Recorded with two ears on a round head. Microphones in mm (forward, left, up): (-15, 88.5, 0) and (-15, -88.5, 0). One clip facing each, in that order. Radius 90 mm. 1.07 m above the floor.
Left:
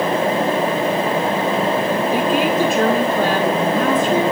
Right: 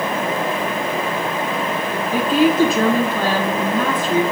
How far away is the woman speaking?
About 7 m.